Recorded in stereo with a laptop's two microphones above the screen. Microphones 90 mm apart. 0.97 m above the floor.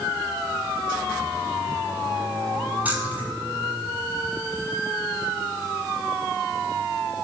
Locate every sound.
2.9 s keys jangling: 20° right (ahead or behind), 7 m